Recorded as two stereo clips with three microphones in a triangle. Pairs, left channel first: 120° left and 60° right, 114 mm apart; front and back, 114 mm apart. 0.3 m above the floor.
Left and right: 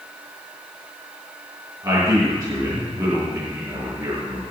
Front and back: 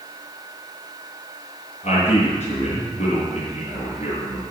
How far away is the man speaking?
About 5.5 m.